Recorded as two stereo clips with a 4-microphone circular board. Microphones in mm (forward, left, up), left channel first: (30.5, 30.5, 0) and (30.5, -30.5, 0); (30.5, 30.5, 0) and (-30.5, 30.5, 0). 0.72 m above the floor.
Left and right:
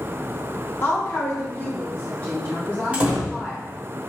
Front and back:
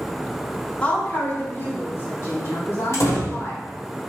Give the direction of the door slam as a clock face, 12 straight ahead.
1 o'clock.